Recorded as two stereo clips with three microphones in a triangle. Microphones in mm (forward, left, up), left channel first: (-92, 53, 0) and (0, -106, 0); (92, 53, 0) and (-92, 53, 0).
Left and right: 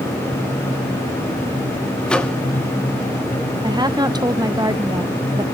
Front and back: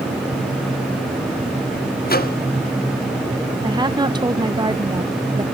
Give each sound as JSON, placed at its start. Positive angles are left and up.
{"t": 2.1, "sound": "a microwave", "azimuth_deg": 35, "distance_m": 1.4}
{"t": 3.6, "sound": "a woman speaking", "azimuth_deg": -120, "distance_m": 1.0}